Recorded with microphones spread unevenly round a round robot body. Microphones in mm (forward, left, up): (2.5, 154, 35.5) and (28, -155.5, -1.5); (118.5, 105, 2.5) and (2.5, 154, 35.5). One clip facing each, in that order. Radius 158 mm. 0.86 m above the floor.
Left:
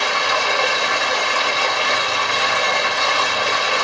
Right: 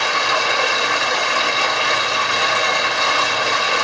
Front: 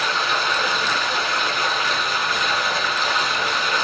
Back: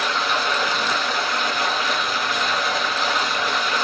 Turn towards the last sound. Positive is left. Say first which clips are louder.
# even, even
turn(degrees=-75)